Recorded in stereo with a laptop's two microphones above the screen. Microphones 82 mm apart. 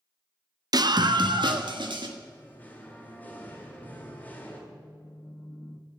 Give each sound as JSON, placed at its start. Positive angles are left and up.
{"t": 0.7, "sound": "a scream", "side_deg": -55, "distance_m": 0.6}
{"t": 2.2, "sound": "singing", "side_deg": 20, "distance_m": 1.6}
{"t": 4.7, "sound": "a phone buzzing", "side_deg": 45, "distance_m": 0.6}